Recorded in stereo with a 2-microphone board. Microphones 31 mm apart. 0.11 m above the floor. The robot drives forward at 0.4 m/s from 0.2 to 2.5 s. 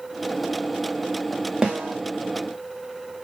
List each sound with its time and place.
1.6 s a snare drum: 30° right (ahead or behind), 3 m